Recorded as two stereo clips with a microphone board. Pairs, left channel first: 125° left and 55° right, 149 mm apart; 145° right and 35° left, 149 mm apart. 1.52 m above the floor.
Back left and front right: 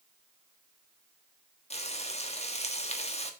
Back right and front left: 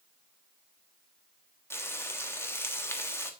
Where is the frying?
145° left, 1.3 m.